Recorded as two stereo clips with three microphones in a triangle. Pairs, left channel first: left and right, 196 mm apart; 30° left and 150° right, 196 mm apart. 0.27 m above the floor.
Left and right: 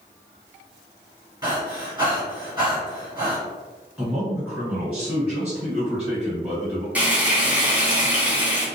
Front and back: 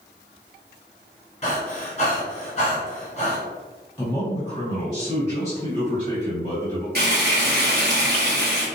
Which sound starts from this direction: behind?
Frying, at 7.0 s.